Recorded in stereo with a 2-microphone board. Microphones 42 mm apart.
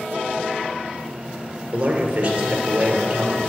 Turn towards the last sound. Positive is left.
turn(degrees=-25)  # may be behind; listen again after turning